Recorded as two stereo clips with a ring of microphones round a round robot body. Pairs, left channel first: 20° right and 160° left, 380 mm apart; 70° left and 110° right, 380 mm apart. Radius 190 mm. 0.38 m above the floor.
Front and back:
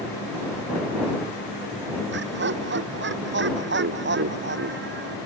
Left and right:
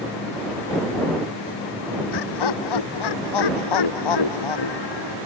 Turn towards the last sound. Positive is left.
turn(degrees=95)